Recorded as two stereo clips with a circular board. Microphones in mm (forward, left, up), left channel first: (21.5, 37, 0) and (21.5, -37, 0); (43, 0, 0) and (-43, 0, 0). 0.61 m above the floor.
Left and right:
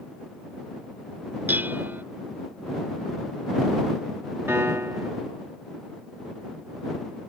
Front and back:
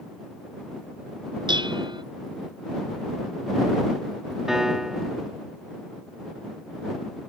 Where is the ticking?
No ticking in this recording.